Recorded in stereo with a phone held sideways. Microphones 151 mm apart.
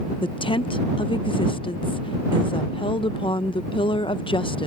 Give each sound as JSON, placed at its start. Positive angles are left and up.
{"t": 0.2, "sound": "a woman speaking", "side_deg": 35}